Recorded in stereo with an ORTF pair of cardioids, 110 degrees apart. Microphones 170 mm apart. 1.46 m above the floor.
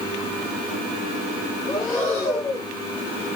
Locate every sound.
1.7 s breathing: 50° left, 2 m